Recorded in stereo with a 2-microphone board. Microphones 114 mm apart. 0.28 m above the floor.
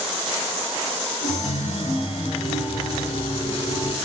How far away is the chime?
About 0.9 m.